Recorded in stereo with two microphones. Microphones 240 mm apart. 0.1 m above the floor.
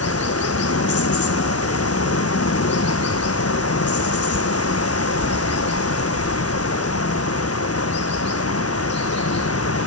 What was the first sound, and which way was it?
Running water, 85° left.